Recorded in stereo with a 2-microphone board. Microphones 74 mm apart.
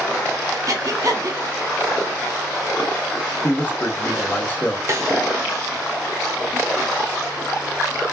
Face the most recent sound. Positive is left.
turn(degrees=-40)  # may be behind; listen again after turning